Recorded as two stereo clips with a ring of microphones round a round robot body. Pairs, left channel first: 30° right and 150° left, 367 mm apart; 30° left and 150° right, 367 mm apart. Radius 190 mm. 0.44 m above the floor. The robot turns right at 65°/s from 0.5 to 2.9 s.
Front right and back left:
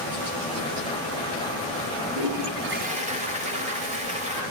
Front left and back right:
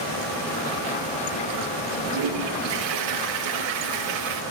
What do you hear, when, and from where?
2.1 s a toilet flushing: 175° left, 8 m; by 4.4 s 140° right, 8 m